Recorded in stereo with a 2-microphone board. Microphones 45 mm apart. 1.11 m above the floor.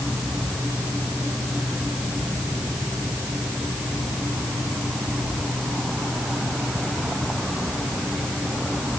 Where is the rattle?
No rattle in this recording.